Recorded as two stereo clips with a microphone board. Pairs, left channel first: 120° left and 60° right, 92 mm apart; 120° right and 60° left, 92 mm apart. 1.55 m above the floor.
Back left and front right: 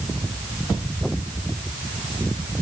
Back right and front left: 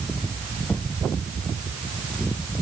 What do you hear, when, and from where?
Only background noise.